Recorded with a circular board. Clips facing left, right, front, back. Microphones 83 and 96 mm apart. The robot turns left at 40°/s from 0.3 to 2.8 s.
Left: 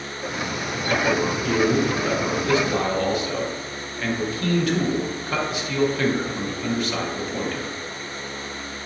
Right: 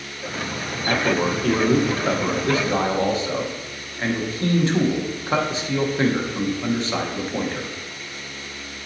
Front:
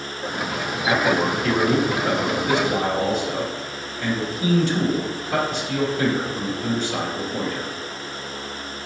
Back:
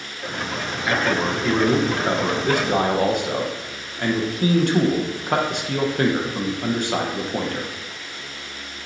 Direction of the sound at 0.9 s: 70° right.